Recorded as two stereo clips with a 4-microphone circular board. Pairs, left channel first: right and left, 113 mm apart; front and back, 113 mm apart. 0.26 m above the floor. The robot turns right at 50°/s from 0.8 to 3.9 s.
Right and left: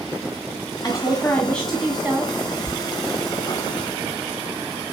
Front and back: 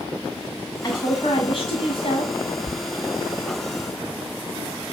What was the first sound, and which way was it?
A woman speaking, 45° right.